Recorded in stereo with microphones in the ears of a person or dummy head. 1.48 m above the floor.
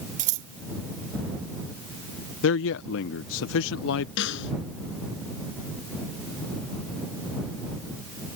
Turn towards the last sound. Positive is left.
turn(degrees=60)  # may be behind; listen again after turning